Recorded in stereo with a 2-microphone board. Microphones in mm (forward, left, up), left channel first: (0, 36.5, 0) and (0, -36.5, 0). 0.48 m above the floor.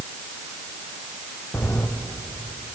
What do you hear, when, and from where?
1.5 s footsteps: 20° left (ahead or behind), 2 m